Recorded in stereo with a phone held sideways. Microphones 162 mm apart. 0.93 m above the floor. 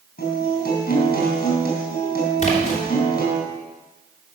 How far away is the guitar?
About 4.5 m.